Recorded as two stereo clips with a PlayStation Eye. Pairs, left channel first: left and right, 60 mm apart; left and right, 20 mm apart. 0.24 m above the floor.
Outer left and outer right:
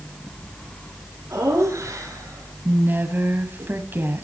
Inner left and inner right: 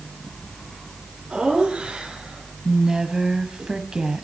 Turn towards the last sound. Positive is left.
turn(degrees=-35)  # may be behind; listen again after turning